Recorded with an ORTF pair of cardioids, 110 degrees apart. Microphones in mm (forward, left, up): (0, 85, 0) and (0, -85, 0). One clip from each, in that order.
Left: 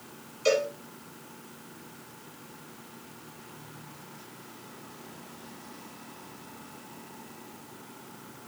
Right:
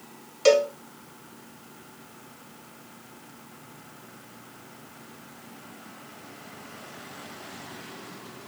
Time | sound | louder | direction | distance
0.5 | a cowbell | right 6 dB | 70° right | 1.2 m